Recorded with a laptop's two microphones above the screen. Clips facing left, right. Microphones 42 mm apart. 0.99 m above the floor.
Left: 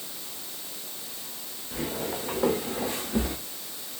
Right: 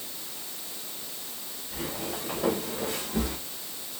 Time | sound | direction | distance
1.7 | footsteps | 80° left | 5.5 m